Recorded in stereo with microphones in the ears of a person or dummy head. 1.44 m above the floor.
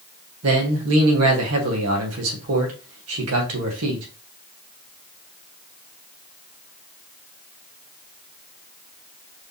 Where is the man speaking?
75° right (ahead or behind), 1.5 m.